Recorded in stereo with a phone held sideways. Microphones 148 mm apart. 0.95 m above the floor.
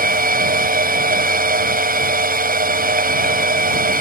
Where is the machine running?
80° right.